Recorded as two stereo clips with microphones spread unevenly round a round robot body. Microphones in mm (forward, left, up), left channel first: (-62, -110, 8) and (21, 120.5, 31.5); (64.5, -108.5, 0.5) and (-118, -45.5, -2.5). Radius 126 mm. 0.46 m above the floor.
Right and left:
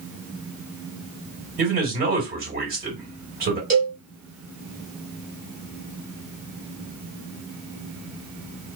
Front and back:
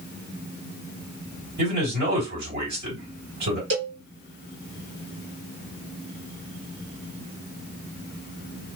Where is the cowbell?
125° left, 1.7 m.